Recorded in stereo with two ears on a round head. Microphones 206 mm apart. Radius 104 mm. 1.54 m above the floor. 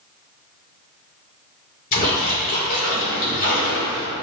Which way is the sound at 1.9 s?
35° left (ahead or behind).